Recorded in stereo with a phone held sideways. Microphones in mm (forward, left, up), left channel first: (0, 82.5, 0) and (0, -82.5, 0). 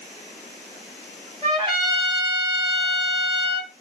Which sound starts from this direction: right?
A trumpet, at 1.4 s.